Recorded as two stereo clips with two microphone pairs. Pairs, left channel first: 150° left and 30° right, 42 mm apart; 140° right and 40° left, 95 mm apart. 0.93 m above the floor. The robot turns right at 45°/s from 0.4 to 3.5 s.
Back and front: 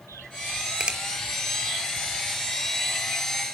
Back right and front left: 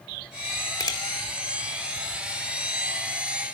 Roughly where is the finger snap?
Right.